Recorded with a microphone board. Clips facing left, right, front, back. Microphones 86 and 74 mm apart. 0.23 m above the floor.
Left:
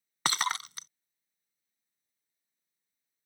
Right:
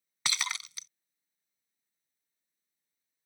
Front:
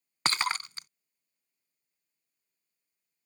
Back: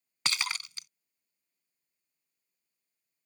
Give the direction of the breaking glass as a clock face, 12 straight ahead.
10 o'clock.